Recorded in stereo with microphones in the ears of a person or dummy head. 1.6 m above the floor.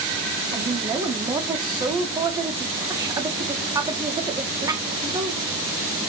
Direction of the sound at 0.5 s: 20° right (ahead or behind).